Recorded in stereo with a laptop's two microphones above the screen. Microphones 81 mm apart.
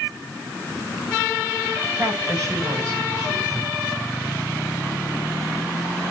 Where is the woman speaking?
45° right (ahead or behind), 6.5 m.